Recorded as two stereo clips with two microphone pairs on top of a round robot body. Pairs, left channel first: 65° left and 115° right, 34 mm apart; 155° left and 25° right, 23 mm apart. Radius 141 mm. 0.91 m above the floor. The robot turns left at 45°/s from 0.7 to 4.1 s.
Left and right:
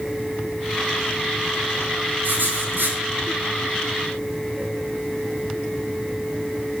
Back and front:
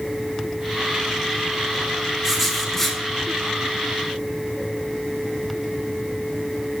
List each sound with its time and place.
2.2 s writing: 90° right, 4.5 m; by 3.0 s 125° right, 4.5 m